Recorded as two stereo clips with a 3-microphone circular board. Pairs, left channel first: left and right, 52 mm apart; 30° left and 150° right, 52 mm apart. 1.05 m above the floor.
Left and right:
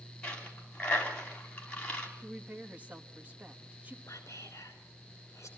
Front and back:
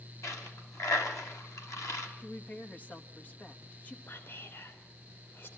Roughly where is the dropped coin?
Ahead left.